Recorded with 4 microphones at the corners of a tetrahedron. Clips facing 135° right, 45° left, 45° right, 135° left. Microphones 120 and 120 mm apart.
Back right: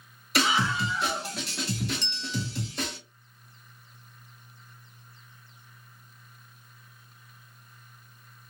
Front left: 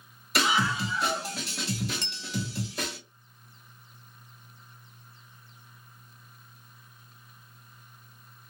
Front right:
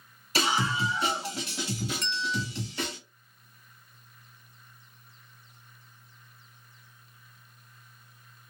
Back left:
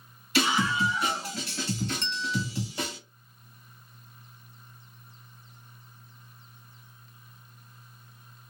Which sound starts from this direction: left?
A bell, at 2.0 s.